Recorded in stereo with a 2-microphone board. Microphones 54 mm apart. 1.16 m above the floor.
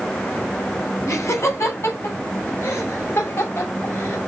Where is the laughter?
60° left (ahead or behind), 8 m; by 4.2 s 45° left (ahead or behind), 7 m.